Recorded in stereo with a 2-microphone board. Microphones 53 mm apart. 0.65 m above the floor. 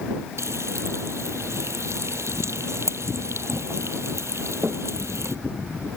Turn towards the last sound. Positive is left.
turn(degrees=-65)  # may be behind; listen again after turning